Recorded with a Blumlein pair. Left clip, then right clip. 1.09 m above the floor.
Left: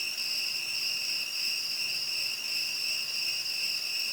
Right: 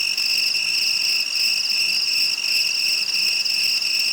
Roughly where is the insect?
Ahead right.